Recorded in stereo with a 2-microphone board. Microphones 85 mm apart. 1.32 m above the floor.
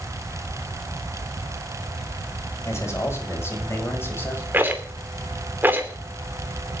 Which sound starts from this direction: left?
A man speaking, at 2.6 s.